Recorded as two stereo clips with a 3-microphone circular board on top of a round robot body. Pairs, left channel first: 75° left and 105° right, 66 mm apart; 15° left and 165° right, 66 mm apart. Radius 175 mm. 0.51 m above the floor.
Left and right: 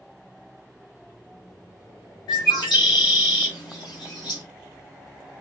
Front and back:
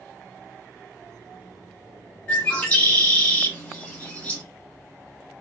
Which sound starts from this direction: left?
A bird, at 2.3 s.